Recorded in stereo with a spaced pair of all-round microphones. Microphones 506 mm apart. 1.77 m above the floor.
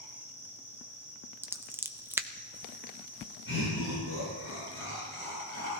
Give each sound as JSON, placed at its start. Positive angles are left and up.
{"t": 0.0, "sound": "an insect", "side_deg": 70, "distance_m": 3.5}
{"t": 1.4, "sound": "scissors", "side_deg": -5, "distance_m": 0.5}
{"t": 3.5, "sound": "laughter", "side_deg": 70, "distance_m": 8.0}